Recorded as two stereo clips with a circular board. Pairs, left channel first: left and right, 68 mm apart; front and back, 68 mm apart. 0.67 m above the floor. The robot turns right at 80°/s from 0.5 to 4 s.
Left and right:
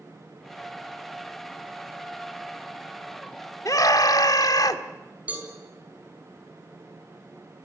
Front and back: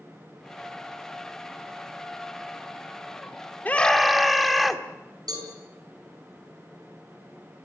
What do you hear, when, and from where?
3.6 s a scream: 60° left, 1.5 m; by 4.8 s 90° left, 1.5 m
5.3 s a cowbell: 160° right, 6 m